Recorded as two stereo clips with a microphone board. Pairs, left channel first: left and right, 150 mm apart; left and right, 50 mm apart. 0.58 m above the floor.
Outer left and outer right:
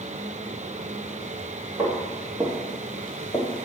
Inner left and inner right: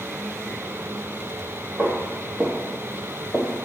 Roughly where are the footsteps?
Right.